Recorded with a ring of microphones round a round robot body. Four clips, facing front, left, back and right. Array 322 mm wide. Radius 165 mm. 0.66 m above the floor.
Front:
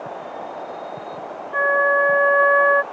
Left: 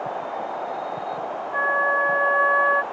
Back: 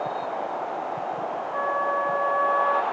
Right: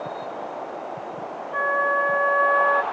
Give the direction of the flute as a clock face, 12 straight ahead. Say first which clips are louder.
Even, front 8 dB; 12 o'clock.